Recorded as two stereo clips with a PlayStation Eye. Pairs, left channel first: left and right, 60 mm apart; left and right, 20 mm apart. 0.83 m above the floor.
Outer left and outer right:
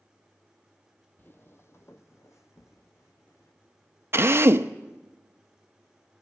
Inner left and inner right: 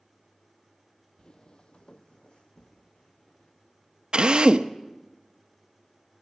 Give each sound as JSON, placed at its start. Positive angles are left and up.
{"t": 1.2, "sound": "footsteps", "side_deg": 35, "distance_m": 1.0}
{"t": 4.1, "sound": "a drill", "side_deg": -45, "distance_m": 0.8}